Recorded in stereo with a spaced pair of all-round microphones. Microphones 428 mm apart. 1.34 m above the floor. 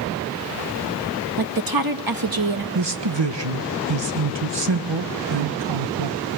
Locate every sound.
1.4 s a woman speaking: 55° right (ahead or behind), 1.5 m
2.8 s a man speaking: 75° right (ahead or behind), 1.5 m